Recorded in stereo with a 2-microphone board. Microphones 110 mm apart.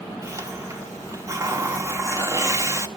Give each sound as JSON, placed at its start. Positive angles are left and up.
{"t": 0.2, "sound": "a hiss", "side_deg": -25, "distance_m": 1.5}